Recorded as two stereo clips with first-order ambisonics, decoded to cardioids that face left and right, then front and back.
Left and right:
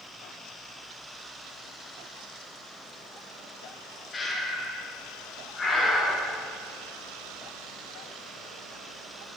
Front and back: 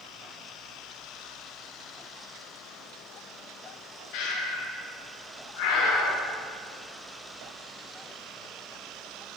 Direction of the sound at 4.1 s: 15° left.